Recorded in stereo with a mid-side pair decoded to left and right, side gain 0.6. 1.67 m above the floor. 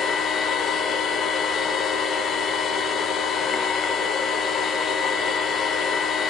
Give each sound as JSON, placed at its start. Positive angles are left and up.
{"t": 0.0, "sound": "a machine running", "azimuth_deg": 40, "distance_m": 1.1}